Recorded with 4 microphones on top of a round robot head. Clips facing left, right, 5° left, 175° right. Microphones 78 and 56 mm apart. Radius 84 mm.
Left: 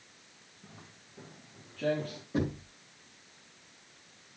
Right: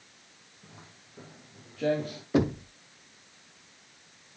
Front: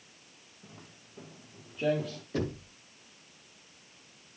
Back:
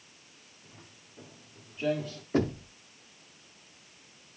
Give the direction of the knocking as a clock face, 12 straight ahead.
4 o'clock.